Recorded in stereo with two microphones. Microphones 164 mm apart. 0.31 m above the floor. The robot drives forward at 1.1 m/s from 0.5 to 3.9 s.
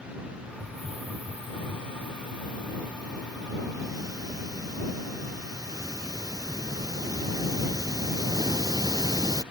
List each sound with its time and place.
0.6 s a hiss: 35° right (ahead or behind); by 9.4 s 20° right (ahead or behind)